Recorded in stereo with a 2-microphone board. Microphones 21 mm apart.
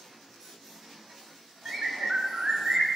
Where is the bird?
50° right (ahead or behind), 0.7 m.